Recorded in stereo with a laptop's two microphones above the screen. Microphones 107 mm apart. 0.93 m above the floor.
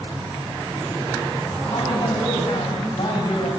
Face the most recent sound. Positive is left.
turn(degrees=55)  # may be behind; listen again after turning